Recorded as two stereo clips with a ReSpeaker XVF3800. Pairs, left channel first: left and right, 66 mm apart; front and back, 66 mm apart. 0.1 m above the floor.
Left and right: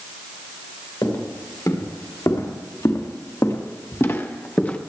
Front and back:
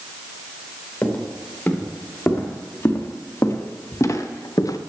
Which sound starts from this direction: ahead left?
Footsteps, at 1.0 s.